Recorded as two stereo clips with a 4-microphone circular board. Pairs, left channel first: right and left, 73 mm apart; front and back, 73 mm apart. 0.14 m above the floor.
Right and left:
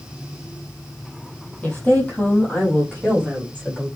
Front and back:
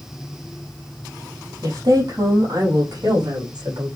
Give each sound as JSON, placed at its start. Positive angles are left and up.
{"t": 1.6, "sound": "a woman speaking", "azimuth_deg": -160, "distance_m": 5.0}